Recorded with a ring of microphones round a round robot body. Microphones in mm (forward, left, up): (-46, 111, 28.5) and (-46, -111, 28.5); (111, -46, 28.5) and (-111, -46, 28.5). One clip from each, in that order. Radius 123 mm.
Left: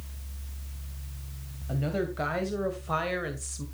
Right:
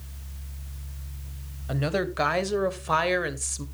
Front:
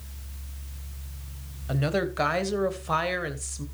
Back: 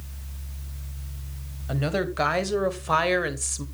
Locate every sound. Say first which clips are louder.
1.7 s a woman speaking: right 4 dB, even; 85° right, 1.9 m; by 3.6 s 135° right, 1.7 m